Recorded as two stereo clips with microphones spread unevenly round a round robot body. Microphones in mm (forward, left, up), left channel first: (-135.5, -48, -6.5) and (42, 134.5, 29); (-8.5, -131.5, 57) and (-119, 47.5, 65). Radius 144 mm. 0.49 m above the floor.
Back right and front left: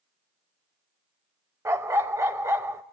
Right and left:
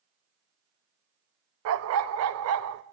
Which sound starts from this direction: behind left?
A dog barking, at 1.6 s.